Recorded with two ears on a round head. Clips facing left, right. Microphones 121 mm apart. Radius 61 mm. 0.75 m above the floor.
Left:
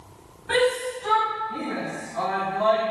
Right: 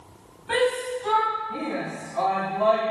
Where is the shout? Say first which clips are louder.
Left 1 dB; 5° right (ahead or behind), 4.5 m; by 2.8 s 10° right (ahead or behind), 7 m.